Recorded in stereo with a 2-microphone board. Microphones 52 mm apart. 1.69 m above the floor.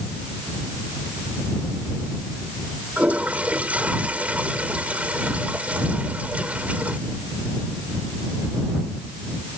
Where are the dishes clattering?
I don't hear dishes clattering.